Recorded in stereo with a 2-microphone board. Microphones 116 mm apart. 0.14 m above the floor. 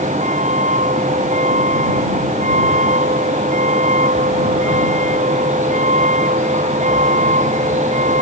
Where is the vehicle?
85° right.